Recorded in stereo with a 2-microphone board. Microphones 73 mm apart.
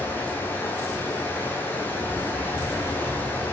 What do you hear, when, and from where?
0.0 s running water: 25° left (ahead or behind), 3 m